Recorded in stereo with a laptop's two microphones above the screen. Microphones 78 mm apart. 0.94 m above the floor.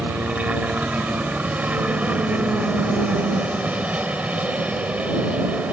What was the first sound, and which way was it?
A helicopter, 20° right (ahead or behind).